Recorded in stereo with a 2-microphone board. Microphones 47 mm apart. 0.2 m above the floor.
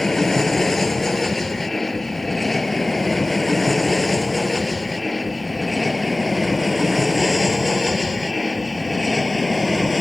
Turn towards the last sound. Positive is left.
turn(degrees=0)  # may be behind; listen again after turning